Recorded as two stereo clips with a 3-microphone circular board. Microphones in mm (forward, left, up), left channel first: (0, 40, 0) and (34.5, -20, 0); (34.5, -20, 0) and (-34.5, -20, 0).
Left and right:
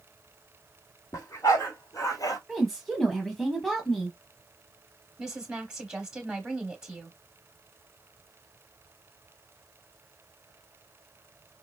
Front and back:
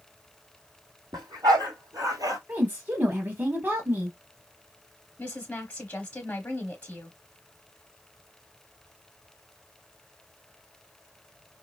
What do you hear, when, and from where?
1.1 s a dog barking: 160° left, 2.0 m; by 2.4 s 150° left, 1.1 m
2.5 s a woman speaking: 155° right, 1.2 m
5.2 s a woman speaking: straight ahead, 1.0 m